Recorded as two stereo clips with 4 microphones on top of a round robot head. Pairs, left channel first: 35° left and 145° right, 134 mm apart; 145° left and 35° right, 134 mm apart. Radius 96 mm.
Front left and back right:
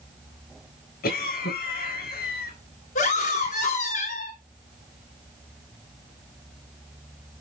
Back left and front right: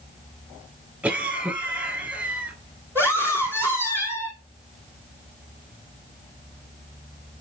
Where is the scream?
40° left, 4 m.